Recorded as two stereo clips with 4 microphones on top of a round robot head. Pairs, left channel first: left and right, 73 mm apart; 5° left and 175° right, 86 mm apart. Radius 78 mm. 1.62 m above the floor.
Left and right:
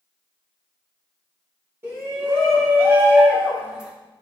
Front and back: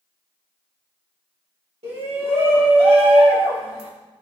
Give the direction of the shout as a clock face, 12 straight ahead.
5 o'clock.